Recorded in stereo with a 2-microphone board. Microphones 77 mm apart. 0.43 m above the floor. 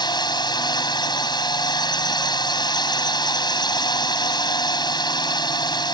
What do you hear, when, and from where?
0.0 s a drone: 65° left (ahead or behind)